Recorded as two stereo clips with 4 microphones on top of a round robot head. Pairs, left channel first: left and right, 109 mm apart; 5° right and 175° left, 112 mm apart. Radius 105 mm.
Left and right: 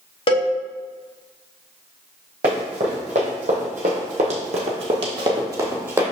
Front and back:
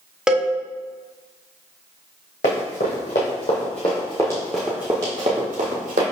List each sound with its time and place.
0.3 s a cowbell: 95° left, 0.9 m
2.4 s running footsteps: 40° right, 1.9 m; by 6.0 s 155° right, 1.3 m